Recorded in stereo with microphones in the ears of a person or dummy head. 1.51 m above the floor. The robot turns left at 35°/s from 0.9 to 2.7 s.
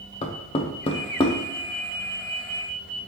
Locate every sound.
0.2 s knocking: 30° left (ahead or behind), 0.5 m; by 1.4 s 15° left (ahead or behind), 0.5 m